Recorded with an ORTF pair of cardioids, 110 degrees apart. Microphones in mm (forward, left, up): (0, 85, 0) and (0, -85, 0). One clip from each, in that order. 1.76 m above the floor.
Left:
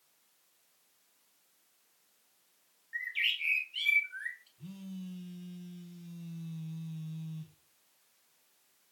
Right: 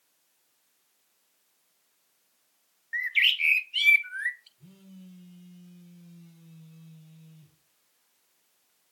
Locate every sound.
2.9 s a bird: 50° right, 0.7 m
4.6 s a phone buzzing: 45° left, 1.5 m